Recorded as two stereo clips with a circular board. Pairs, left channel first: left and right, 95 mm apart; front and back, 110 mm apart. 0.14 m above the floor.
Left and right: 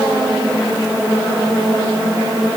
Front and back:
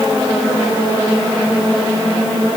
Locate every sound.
Only background noise.